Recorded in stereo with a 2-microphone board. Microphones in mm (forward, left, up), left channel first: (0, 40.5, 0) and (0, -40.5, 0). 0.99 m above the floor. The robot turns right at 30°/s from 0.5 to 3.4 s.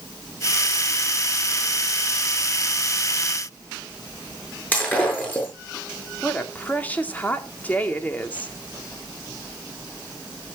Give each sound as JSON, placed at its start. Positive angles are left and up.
{"t": 4.7, "sound": "breaking glass", "side_deg": 20, "distance_m": 7.0}
{"t": 6.2, "sound": "a woman speaking", "side_deg": 20, "distance_m": 2.0}